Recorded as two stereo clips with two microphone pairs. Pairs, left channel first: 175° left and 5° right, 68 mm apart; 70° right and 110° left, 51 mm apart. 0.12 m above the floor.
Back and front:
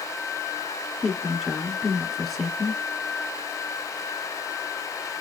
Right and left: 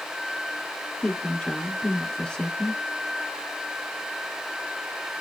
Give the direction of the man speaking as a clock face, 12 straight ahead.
3 o'clock.